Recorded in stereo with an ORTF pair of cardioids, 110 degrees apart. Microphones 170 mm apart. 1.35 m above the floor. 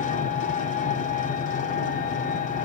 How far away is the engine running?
About 1.1 m.